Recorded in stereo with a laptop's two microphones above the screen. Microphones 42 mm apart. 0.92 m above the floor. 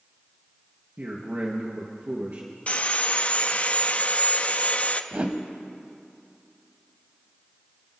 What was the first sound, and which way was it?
A man speaking, 50° right (ahead or behind).